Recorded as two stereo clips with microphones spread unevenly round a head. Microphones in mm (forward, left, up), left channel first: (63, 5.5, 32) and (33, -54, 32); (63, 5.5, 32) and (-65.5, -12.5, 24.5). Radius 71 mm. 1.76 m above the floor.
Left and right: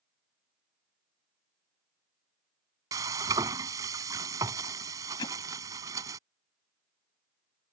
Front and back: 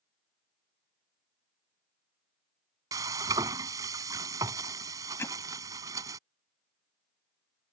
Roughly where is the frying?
Right.